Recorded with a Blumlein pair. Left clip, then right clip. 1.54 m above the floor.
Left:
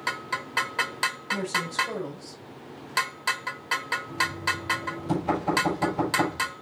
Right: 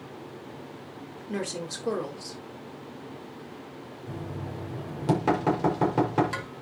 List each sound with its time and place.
1.3 s a woman speaking: 45° right, 5 m
4.1 s knocking: 55° right, 5 m